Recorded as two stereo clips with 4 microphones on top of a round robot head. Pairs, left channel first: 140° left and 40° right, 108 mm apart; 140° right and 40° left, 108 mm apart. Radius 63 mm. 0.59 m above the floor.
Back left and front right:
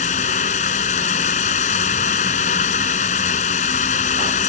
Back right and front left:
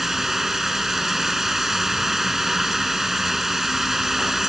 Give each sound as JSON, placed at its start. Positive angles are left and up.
{"t": 0.0, "sound": "running water", "azimuth_deg": 130}